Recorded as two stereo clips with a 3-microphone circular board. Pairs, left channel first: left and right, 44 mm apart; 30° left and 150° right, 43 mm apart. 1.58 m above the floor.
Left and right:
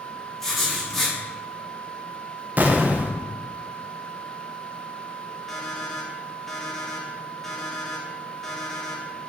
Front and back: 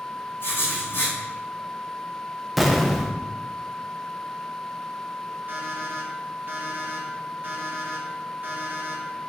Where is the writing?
5° left, 2.5 m.